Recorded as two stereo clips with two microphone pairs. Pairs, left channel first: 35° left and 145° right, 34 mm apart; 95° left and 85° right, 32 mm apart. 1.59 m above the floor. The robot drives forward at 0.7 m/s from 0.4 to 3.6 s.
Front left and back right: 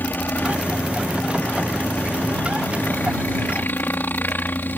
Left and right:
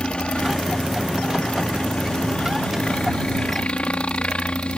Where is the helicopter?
40° left; by 4.8 s 45° left.